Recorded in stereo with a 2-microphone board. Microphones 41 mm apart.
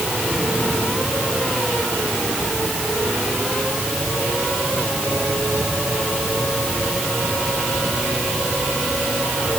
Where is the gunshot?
No gunshot in this recording.